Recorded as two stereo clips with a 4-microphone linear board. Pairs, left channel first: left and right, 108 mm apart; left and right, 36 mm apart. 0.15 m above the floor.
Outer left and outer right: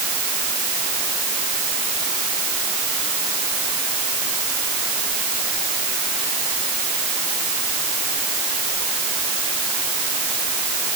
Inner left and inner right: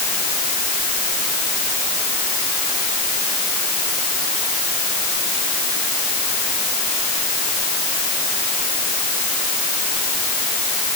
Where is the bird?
No bird in this recording.